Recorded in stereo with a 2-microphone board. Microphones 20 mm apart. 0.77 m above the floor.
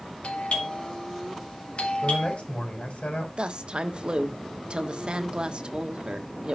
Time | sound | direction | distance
0.2 | a doorbell | 65° left (ahead or behind) | 3 m
2.0 | a man speaking | 80° left | 4.5 m
3.4 | a woman speaking | 45° right (ahead or behind) | 1.4 m